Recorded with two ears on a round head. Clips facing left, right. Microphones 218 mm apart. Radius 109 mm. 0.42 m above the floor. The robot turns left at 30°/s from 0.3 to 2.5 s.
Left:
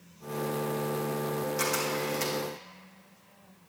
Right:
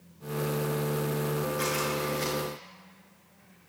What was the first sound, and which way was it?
A camera shutter, 80° left.